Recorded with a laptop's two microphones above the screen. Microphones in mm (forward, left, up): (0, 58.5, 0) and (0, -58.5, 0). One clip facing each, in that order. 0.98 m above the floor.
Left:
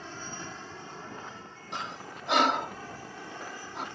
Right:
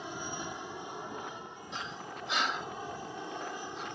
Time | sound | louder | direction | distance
0.0 | an aircraft | right 2 dB | 15° right (ahead or behind) | ?
1.7 | breathing | left 3 dB | 65° left (ahead or behind) | ?